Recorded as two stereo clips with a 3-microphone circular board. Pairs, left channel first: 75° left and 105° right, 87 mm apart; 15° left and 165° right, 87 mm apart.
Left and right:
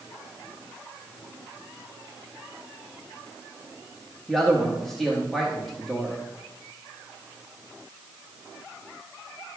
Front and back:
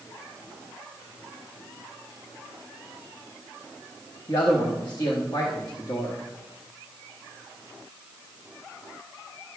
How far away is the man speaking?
About 1.0 m.